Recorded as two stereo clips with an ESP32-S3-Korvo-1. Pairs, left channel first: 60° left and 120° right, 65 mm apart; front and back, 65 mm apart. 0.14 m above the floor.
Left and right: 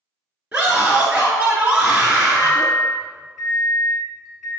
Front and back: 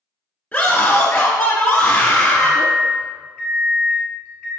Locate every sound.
0.5 s a scream: 60° right, 1.5 m
2.4 s a microwave: 50° right, 1.3 m